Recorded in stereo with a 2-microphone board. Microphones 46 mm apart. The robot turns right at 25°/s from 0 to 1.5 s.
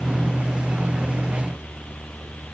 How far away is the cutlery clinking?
No cutlery clinking in this recording.